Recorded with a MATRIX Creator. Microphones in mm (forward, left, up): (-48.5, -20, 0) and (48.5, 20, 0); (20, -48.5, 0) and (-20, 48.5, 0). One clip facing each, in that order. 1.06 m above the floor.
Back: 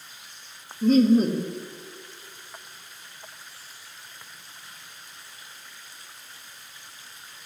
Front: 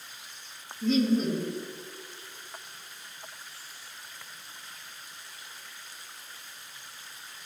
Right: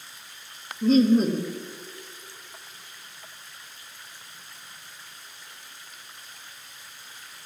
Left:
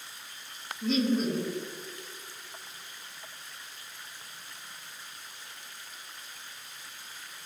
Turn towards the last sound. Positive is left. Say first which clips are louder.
# back 7 dB, right 8 dB
turn(degrees=-115)